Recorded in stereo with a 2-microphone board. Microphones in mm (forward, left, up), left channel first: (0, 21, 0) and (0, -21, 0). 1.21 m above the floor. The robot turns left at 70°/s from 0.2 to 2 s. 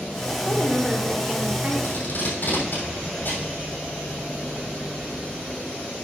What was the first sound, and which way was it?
A woman speaking, 55° left.